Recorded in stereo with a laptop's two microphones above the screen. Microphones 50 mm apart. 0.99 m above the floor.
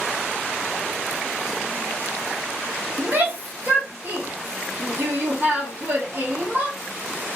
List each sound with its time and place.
3.0 s a shout: 40° right (ahead or behind), 2.5 m